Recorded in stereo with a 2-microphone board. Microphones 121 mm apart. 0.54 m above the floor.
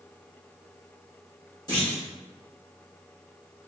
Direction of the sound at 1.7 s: 35° left (ahead or behind).